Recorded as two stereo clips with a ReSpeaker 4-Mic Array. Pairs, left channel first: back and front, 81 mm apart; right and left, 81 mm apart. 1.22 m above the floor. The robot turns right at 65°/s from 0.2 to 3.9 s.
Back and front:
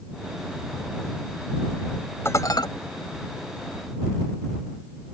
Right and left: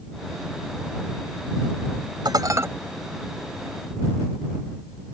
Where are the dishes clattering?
120° left; by 2.7 s 150° left.